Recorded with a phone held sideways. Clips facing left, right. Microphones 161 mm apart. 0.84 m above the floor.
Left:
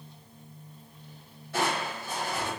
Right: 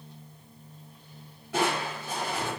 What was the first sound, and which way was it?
Crushing, 75° right (ahead or behind).